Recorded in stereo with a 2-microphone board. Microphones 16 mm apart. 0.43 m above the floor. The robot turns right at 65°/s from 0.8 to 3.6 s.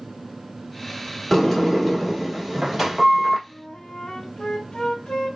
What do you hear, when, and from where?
1.3 s a sliding door: 15° left (ahead or behind), 1.2 m; by 3.4 s 20° right (ahead or behind), 1.2 m
3.5 s a flute: 45° left (ahead or behind), 1.4 m; by 5.4 s 50° left (ahead or behind), 1.4 m